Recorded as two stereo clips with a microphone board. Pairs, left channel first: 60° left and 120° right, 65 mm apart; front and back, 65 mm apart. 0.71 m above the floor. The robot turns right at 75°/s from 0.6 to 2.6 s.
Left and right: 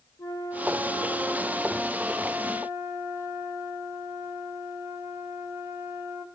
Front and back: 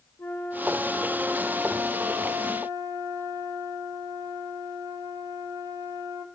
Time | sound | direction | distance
0.2 | a flute | 45° left | 1.7 m